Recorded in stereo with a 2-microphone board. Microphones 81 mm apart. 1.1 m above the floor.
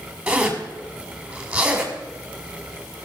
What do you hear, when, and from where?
0.3 s a zipper: 20° right (ahead or behind), 2.5 m